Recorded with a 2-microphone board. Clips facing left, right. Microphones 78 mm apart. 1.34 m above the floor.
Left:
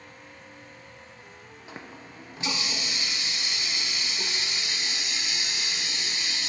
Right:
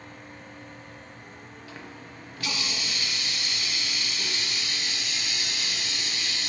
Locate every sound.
1.7 s a running tap: 25° left (ahead or behind), 0.6 m